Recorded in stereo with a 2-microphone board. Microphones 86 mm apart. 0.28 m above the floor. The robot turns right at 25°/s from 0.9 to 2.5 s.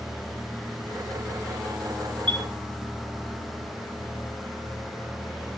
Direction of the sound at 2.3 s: 70° right (ahead or behind).